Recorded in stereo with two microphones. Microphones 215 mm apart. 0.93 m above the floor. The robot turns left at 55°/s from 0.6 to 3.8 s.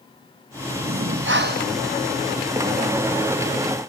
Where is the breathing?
95° right, 1.0 m; by 1.8 s 145° right, 1.0 m.